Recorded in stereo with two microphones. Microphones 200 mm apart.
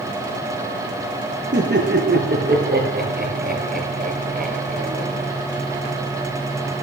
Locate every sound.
1.5 s laughter: 60° right (ahead or behind), 5.5 m; by 5.3 s 40° right (ahead or behind), 6 m